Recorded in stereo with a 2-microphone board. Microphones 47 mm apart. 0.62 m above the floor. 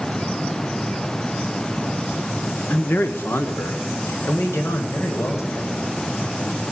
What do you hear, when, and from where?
2.7 s a man speaking: 35° left (ahead or behind), 0.8 m; by 5.8 s 75° left (ahead or behind), 3 m